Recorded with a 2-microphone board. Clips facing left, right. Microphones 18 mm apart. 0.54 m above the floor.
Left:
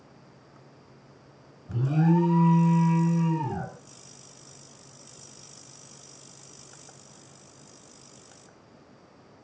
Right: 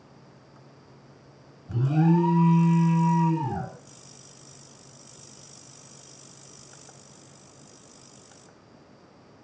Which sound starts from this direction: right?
An alarm, at 1.7 s.